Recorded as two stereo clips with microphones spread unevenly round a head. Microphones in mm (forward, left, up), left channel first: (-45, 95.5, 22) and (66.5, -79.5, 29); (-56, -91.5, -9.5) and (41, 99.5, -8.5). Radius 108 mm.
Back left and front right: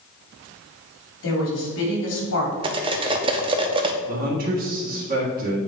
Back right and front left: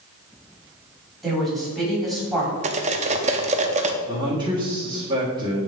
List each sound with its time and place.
1.2 s a woman speaking: 155° left, 2.5 m
2.6 s cutlery clinking: 5° left, 0.6 m
4.1 s a man speaking: 10° right, 1.5 m